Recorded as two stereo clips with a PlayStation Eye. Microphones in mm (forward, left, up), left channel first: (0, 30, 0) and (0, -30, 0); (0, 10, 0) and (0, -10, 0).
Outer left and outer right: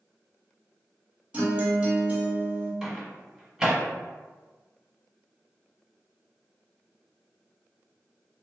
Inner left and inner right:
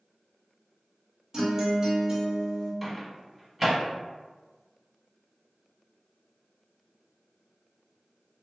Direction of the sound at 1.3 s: 20° right (ahead or behind).